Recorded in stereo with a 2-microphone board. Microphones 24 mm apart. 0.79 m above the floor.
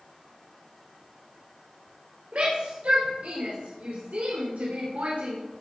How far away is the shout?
About 4.5 m.